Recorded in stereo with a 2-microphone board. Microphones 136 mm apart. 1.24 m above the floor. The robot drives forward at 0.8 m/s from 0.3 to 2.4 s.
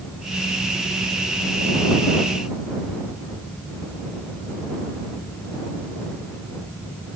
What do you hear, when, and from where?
Only background noise.